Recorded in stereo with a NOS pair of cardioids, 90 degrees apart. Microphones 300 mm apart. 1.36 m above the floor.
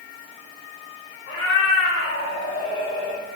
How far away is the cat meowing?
About 2.0 m.